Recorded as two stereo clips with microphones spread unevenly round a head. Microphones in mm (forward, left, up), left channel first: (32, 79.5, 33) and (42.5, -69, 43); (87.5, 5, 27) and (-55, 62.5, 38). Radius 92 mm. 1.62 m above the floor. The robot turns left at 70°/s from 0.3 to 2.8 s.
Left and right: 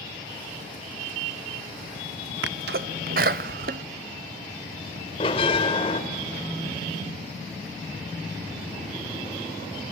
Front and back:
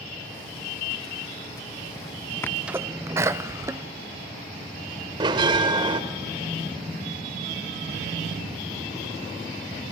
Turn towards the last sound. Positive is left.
turn(degrees=140)